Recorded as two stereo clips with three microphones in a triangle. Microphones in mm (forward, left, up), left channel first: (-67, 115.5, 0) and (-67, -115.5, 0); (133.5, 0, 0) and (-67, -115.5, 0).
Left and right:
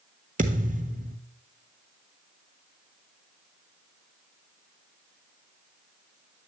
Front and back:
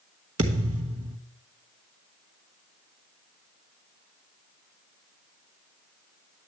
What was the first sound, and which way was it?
A thud, 145° right.